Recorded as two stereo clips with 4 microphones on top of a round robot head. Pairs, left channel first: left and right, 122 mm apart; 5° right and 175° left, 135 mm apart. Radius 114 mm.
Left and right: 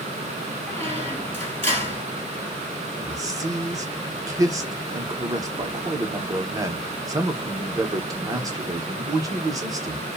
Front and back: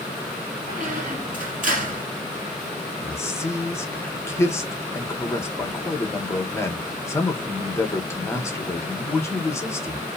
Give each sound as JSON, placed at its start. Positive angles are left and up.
{"t": 0.7, "sound": "a squeak", "azimuth_deg": 160, "distance_m": 2.0}
{"t": 3.0, "sound": "a man speaking", "azimuth_deg": -60, "distance_m": 0.9}